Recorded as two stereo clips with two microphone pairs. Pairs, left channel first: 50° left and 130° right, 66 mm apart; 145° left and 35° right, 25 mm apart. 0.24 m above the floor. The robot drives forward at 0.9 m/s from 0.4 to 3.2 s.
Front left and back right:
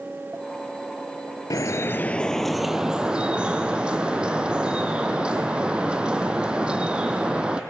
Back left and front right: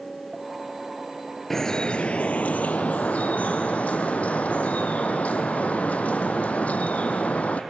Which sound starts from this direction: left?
Dripping, at 1.5 s.